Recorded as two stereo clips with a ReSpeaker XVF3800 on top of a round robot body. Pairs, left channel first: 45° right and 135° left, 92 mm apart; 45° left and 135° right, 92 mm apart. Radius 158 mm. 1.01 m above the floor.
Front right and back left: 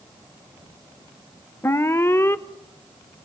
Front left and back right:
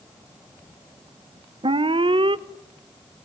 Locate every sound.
1.6 s an alarm: 110° right, 1.1 m